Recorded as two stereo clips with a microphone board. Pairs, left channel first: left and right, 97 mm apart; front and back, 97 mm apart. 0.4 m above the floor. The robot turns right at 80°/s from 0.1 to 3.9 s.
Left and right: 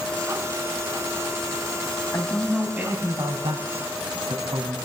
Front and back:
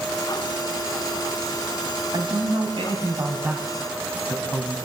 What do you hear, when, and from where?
2.1 s a man speaking: 145° left, 3.5 m; by 4.8 s 70° right, 3.5 m